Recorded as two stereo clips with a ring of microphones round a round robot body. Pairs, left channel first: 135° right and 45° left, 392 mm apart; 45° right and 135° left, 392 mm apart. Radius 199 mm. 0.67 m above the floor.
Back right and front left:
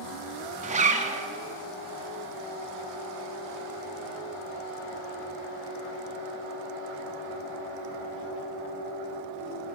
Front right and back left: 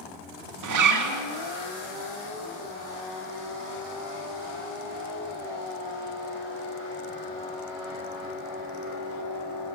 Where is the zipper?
110° left, 1.7 m.